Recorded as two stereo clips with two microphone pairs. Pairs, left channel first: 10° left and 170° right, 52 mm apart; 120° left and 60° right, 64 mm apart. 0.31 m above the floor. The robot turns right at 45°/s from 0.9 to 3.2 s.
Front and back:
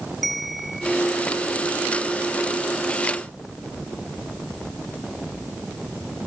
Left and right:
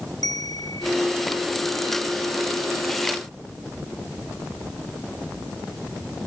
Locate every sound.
0.2 s a bell: 100° left; by 1.0 s 105° left